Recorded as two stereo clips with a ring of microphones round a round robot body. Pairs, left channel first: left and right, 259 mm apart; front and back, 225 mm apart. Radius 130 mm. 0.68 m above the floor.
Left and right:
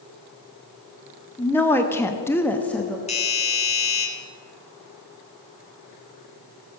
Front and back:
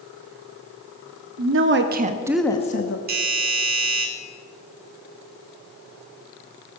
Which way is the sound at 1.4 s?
170° left.